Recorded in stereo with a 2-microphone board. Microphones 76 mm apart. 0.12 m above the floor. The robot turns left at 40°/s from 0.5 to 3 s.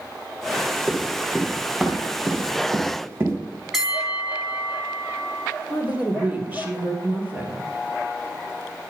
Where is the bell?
5° right (ahead or behind), 1.9 m.